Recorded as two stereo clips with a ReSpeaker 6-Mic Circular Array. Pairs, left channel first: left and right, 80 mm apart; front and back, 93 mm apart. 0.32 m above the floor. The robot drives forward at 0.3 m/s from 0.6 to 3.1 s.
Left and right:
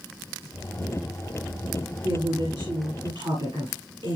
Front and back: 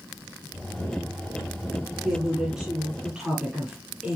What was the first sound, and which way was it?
A woman speaking, 95° right.